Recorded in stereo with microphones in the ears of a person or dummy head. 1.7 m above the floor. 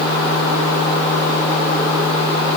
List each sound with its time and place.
Only background noise.